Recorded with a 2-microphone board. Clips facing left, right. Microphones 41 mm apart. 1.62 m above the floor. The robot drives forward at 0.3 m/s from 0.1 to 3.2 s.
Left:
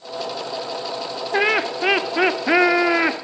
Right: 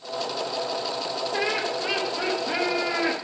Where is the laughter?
50° left (ahead or behind), 0.6 m; by 3.1 s 60° left (ahead or behind), 0.5 m.